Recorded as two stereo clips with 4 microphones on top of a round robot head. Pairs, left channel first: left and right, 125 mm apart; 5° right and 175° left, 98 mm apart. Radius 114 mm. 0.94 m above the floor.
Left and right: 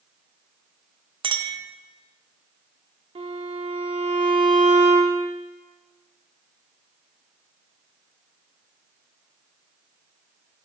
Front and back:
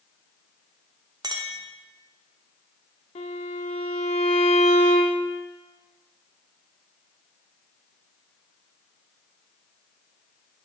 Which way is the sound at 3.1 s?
35° right.